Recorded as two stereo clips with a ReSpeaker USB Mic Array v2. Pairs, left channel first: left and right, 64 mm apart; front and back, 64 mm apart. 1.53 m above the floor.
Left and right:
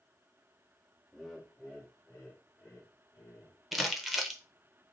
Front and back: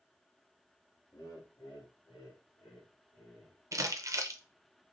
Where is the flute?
No flute in this recording.